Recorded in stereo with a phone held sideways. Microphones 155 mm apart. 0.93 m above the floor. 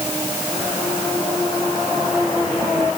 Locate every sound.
Only background noise.